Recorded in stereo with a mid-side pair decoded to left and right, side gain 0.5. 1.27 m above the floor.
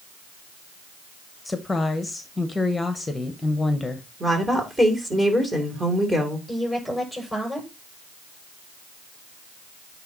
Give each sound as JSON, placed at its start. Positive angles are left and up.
{"t": 1.4, "sound": "a woman speaking", "azimuth_deg": 15, "distance_m": 1.1}
{"t": 4.2, "sound": "a woman speaking", "azimuth_deg": -15, "distance_m": 3.0}
{"t": 6.5, "sound": "a woman speaking", "azimuth_deg": 5, "distance_m": 6.0}